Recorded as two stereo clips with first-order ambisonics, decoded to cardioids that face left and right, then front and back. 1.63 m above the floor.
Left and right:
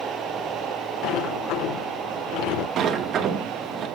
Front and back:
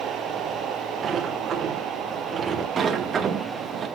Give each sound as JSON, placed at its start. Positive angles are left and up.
{"t": 1.0, "sound": "a sliding door", "azimuth_deg": 115, "distance_m": 1.4}
{"t": 2.8, "sound": "a sliding door", "azimuth_deg": -120, "distance_m": 1.1}